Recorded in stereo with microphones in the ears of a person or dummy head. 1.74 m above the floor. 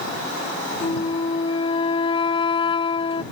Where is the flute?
30° left (ahead or behind).